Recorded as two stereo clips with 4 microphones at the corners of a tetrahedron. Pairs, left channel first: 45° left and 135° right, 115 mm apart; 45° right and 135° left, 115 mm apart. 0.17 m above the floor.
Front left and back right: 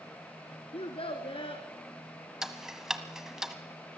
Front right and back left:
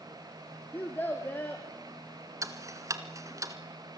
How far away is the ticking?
About 1.5 m.